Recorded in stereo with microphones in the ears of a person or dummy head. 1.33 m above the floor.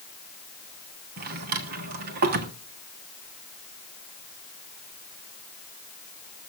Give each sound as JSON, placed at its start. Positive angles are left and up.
{"t": 1.2, "sound": "a drawer", "side_deg": -45, "distance_m": 1.3}